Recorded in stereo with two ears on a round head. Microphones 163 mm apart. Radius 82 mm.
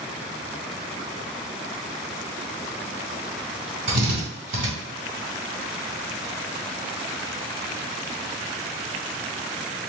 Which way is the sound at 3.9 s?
50° right (ahead or behind).